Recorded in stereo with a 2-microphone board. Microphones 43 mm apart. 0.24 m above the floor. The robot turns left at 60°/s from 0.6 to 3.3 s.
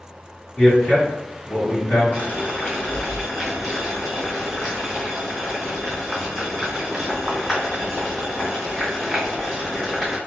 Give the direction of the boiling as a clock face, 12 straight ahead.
10 o'clock.